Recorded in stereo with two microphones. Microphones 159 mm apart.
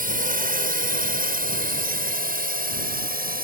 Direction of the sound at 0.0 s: 65° right (ahead or behind).